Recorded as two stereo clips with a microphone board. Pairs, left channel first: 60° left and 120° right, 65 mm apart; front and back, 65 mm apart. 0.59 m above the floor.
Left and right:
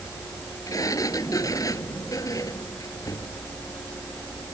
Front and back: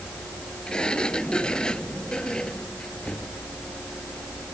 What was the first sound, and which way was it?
A sliding door, 75° left.